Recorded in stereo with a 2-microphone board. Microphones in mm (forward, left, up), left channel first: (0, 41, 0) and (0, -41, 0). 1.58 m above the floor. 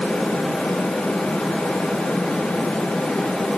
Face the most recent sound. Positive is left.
No sound to turn to.